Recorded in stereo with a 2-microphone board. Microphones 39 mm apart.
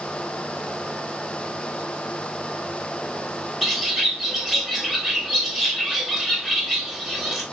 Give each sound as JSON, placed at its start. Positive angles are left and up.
{"t": 3.6, "sound": "a bird", "side_deg": -5, "distance_m": 0.9}